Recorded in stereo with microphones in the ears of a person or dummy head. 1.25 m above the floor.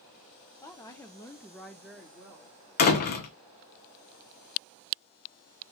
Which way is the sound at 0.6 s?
15° left (ahead or behind).